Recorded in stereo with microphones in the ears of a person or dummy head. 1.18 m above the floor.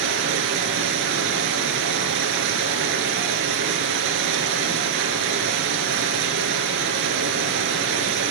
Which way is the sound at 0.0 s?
60° right (ahead or behind).